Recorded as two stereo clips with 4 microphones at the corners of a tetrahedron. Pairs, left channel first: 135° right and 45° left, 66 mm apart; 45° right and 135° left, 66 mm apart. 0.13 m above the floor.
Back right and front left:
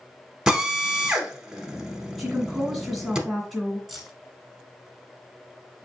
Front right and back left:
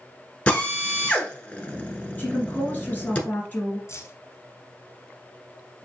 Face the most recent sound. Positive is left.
turn(degrees=-50)